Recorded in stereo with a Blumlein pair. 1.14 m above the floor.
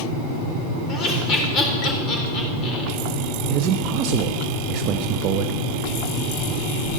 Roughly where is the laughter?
Ahead left.